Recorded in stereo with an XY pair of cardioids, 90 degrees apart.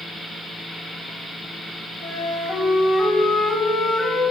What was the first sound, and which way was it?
A flute, 50° left.